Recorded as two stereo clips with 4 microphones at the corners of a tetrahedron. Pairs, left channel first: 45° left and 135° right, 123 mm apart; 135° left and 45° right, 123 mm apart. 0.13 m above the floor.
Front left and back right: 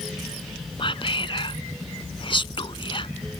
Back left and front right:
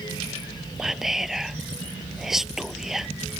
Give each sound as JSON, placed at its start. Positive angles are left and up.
{"t": 0.8, "sound": "whispering", "azimuth_deg": 40}